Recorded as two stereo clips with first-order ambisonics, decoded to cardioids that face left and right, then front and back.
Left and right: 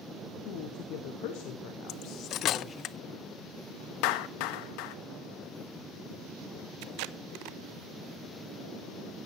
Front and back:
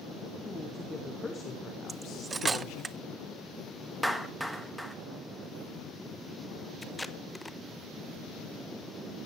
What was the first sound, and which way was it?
A woman speaking, 90° left.